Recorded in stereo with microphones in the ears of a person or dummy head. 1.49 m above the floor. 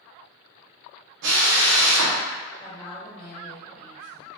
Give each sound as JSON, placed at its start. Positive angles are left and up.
{"t": 1.2, "sound": "a drill", "side_deg": -65, "distance_m": 0.8}
{"t": 2.6, "sound": "a woman speaking", "side_deg": 5, "distance_m": 1.5}